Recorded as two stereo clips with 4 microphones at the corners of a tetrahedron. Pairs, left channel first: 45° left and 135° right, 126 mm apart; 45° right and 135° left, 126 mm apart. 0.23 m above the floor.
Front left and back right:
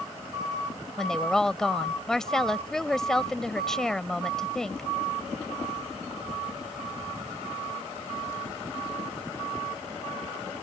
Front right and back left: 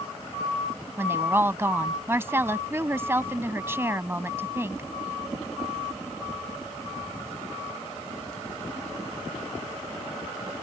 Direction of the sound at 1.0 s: 125° left.